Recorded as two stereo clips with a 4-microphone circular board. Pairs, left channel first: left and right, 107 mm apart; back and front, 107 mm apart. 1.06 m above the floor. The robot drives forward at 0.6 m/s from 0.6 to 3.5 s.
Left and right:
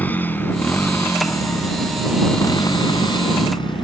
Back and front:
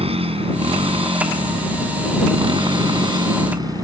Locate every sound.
0.0 s a motorcycle: 15° left; by 3.9 s 50° left